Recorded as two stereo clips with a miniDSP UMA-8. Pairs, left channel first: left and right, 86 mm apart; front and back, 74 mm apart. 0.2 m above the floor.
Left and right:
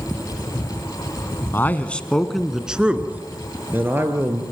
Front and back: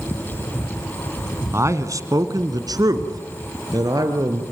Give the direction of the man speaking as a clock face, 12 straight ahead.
7 o'clock.